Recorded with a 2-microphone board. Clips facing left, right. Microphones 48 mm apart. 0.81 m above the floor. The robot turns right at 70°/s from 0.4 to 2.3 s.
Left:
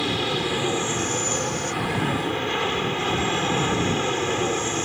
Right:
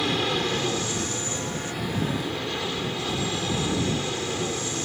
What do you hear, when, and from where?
0.0 s an aircraft: straight ahead; by 4.8 s 135° left